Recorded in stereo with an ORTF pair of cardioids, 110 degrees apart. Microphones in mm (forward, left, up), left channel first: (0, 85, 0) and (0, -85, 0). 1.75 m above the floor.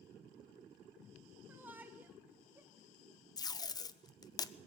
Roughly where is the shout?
Ahead.